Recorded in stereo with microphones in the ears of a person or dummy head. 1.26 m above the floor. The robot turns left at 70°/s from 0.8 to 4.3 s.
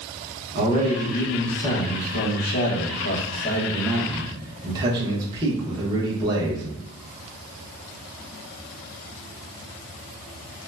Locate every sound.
0.6 s a man speaking: 135° right, 1.0 m; by 6.7 s 20° right, 1.0 m